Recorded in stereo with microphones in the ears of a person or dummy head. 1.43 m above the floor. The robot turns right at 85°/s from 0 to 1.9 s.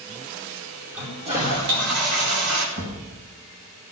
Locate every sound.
0.9 s a toilet flushing: 175° right, 4.5 m; by 2.7 s 90° right, 4.5 m
2.8 s a thud: 80° right, 4.5 m